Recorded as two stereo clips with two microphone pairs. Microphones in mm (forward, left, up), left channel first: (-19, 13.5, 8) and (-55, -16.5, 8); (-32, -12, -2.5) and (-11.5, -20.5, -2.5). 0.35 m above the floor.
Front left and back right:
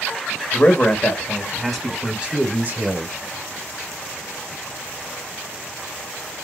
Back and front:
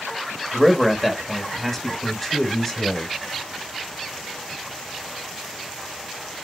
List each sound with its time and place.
0.5 s a man speaking: 75° left, 1.1 m; by 3.1 s 140° right, 1.2 m